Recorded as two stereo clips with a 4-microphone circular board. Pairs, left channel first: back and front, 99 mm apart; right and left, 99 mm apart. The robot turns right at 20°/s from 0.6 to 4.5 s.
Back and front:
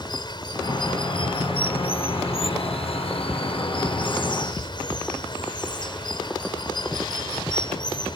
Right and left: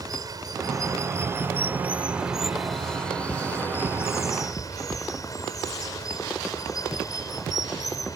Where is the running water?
140° left; by 8.2 s 140° right.